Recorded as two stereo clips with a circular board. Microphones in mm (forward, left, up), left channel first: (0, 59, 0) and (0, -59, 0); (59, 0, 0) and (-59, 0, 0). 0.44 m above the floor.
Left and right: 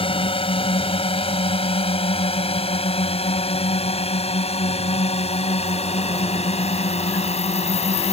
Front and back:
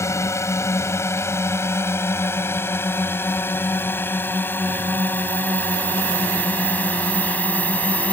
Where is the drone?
60° left; by 8.1 s 75° left.